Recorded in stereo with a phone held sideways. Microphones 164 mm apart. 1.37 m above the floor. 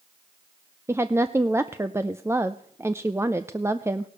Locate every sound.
0.9 s a woman speaking: 15° right (ahead or behind), 0.5 m